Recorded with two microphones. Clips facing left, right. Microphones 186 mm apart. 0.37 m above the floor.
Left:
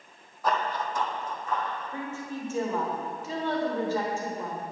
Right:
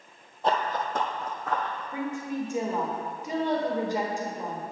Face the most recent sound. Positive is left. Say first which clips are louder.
# right 4 dB
turn(degrees=-15)  # may be behind; listen again after turning